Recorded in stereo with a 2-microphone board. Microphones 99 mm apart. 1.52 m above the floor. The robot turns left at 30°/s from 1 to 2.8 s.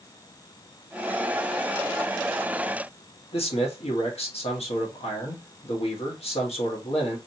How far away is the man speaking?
About 1.7 m.